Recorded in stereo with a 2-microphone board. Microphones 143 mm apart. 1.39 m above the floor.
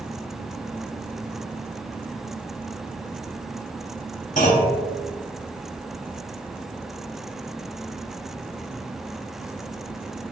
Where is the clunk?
65° left (ahead or behind), 3.5 m.